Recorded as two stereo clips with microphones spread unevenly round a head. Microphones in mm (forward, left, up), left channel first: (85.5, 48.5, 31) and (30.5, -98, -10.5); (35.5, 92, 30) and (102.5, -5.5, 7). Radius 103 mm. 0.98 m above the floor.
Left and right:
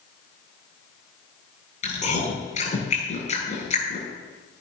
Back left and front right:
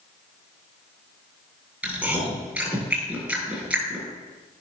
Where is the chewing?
25° left, 9.5 m.